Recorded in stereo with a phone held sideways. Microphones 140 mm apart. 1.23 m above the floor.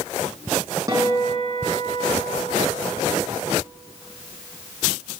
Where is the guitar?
25° right (ahead or behind), 6.5 m.